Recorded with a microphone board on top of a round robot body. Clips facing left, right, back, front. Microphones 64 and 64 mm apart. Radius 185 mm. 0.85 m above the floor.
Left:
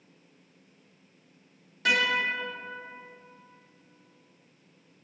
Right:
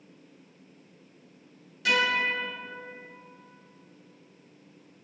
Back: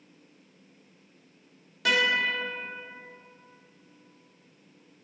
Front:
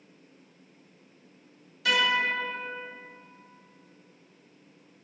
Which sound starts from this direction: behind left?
A guitar, at 1.9 s.